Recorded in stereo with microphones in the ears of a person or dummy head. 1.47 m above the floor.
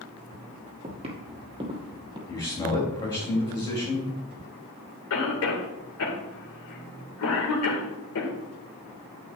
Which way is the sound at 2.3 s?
15° left (ahead or behind).